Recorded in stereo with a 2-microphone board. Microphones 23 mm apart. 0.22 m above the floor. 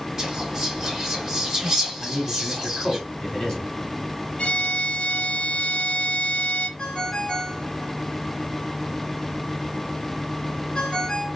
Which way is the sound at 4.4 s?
40° left (ahead or behind).